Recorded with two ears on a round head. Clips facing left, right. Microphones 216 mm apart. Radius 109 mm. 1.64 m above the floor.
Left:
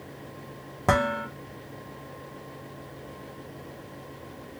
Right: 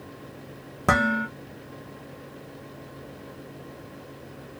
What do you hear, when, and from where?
0.9 s dishes clattering: 10° right (ahead or behind), 0.8 m